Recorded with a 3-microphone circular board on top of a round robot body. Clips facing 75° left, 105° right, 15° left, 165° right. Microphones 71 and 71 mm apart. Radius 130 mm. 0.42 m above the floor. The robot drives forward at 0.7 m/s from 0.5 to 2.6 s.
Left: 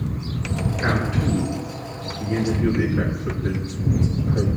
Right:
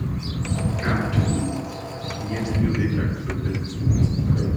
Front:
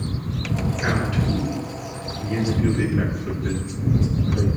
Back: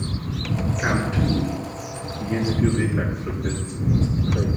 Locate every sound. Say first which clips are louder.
0.8 s a man speaking: left 2 dB, back 2 dB; 135° left, 5 m; by 4.5 s 140° left, 6 m